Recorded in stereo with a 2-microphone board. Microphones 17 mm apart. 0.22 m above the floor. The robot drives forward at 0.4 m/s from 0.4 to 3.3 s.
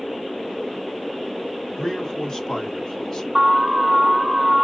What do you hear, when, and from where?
1.8 s a man speaking: 40° left (ahead or behind), 1.7 m; by 3.2 s 35° left (ahead or behind), 2.0 m
3.4 s an alarm: 25° right (ahead or behind), 3 m